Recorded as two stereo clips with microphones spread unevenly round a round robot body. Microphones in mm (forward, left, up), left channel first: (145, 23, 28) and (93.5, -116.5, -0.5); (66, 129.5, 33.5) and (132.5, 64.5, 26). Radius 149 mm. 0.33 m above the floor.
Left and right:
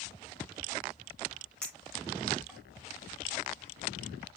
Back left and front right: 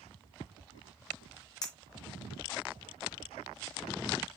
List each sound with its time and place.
1.6 s a clink: 165° left, 0.7 m